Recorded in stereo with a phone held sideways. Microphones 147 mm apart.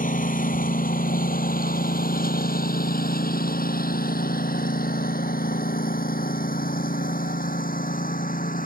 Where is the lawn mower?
65° left (ahead or behind); by 8.7 s 70° left (ahead or behind).